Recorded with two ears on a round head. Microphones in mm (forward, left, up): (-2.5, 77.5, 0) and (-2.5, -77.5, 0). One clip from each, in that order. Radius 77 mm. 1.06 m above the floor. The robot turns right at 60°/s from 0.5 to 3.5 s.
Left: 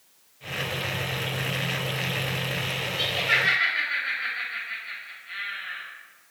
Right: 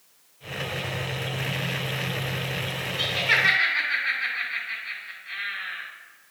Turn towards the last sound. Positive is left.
turn(degrees=-15)  # may be behind; listen again after turning